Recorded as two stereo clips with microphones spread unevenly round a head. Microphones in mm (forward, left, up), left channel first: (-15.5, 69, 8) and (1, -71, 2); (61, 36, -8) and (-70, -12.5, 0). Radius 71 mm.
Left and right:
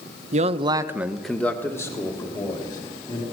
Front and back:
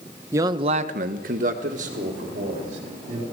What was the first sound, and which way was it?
A man speaking, 90° right.